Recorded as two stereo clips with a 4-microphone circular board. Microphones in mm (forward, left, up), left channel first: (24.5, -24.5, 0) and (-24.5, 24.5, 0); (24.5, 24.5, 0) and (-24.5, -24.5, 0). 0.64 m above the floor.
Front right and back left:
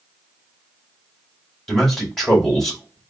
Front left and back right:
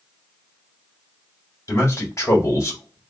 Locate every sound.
1.7 s a man speaking: 40° left, 1.4 m